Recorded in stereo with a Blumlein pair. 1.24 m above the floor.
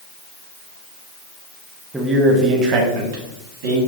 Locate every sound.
1.9 s a man speaking: 5° right, 0.7 m; by 3.8 s 55° right, 1.5 m